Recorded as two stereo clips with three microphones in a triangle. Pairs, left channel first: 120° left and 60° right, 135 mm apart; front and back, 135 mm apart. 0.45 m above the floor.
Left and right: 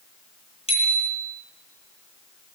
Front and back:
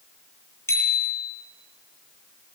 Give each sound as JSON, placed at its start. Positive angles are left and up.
{"t": 0.7, "sound": "a bicycle bell", "azimuth_deg": 75, "distance_m": 7.5}